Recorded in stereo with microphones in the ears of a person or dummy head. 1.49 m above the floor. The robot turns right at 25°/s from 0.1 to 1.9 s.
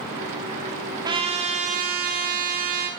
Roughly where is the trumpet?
Right.